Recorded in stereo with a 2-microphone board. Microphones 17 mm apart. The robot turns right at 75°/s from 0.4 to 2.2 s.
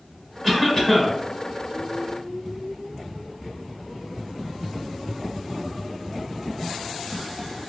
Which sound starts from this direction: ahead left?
A cough, at 0.4 s.